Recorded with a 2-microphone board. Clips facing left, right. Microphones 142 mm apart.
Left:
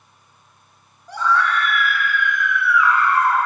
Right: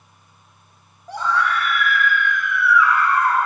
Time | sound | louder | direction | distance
1.1 | a scream | left 1 dB | 30° right (ahead or behind) | 1.3 m